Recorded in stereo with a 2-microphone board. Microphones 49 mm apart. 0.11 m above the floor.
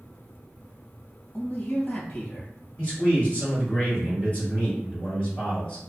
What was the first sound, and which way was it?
A man speaking, 40° left (ahead or behind).